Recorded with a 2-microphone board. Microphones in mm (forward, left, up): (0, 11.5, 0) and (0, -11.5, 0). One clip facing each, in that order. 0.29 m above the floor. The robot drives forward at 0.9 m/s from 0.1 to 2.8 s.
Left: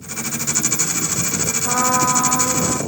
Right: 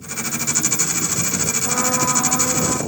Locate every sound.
1.6 s a trumpet: 70° left (ahead or behind), 0.8 m; by 2.8 s 45° left (ahead or behind), 1.1 m